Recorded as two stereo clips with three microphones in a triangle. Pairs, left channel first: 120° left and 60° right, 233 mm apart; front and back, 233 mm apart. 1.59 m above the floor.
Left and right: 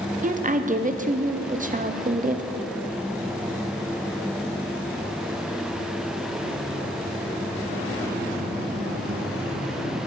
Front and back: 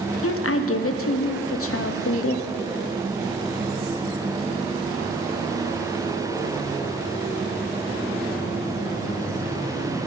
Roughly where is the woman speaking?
Ahead.